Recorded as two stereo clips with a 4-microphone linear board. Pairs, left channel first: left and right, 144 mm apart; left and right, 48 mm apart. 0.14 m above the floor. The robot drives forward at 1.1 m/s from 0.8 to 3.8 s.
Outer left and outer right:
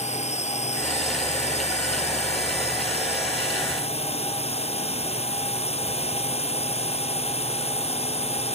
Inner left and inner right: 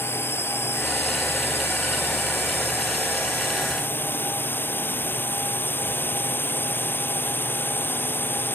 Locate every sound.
0.0 s a drone: 50° left (ahead or behind); by 8.6 s 45° left (ahead or behind)